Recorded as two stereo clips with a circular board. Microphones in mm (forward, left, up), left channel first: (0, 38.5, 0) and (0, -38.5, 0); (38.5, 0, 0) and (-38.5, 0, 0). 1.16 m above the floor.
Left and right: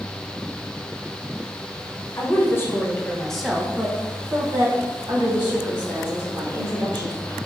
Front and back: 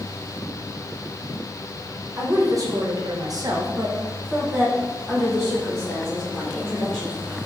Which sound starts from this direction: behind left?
A woman speaking, at 2.2 s.